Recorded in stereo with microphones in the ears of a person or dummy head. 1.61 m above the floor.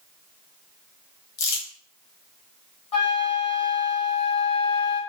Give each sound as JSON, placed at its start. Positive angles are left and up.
{"t": 1.4, "sound": "crumpling", "side_deg": 70, "distance_m": 0.8}
{"t": 2.9, "sound": "a flute", "side_deg": 30, "distance_m": 1.0}